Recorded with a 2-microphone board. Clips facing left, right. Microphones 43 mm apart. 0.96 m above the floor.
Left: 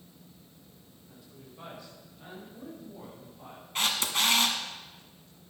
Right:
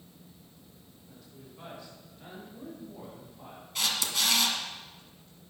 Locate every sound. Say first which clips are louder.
1.1 s a woman speaking: even; 10° left (ahead or behind), 4.5 m; by 3.6 s 10° right (ahead or behind), 7.5 m
3.8 s a camera shutter: left 2 dB; 35° left (ahead or behind), 1.5 m